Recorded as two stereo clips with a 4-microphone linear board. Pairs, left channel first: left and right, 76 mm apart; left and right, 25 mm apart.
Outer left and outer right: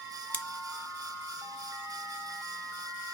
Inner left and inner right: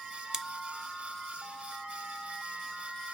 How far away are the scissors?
About 0.5 m.